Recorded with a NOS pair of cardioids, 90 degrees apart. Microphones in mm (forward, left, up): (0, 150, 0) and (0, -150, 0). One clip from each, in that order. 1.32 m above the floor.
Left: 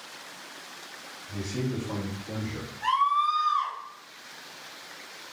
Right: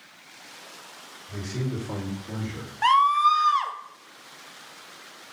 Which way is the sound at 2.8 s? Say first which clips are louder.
Right 5 dB; 65° right.